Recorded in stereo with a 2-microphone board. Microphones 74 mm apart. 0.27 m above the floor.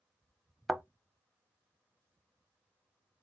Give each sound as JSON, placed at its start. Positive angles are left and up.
{"t": 0.7, "sound": "a thud", "side_deg": 0, "distance_m": 0.5}